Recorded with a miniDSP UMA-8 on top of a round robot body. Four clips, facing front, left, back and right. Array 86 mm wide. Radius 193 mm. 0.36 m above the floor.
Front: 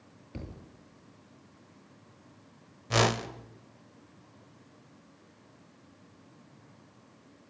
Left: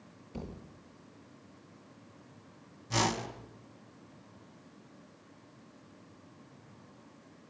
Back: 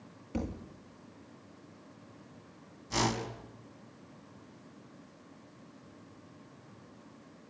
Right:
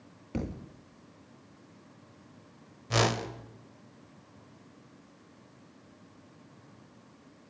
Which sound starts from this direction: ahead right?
A whoosh, at 2.9 s.